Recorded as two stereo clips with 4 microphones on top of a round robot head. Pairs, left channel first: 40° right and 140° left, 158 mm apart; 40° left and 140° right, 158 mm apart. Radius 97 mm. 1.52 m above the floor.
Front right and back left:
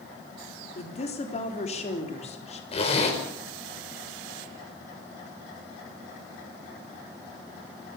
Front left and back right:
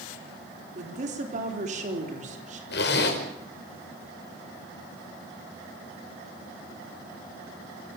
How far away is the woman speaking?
About 3.5 m.